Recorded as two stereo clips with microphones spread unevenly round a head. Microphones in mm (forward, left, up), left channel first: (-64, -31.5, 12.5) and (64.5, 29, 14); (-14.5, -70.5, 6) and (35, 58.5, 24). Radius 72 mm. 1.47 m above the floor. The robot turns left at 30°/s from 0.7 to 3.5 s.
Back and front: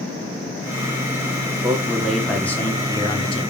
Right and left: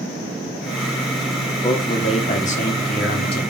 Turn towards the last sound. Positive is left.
turn(degrees=-105)